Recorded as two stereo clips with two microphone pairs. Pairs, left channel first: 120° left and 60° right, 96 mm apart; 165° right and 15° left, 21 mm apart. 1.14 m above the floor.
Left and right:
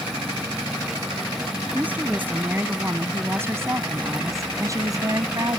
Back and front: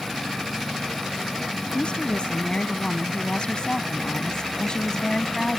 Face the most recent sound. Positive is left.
turn(degrees=-105)